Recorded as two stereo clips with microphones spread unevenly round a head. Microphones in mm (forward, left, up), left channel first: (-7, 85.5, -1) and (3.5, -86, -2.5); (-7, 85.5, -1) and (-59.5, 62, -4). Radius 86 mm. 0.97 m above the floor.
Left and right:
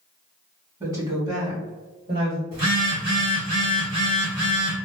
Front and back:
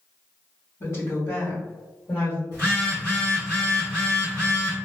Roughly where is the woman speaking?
Ahead right.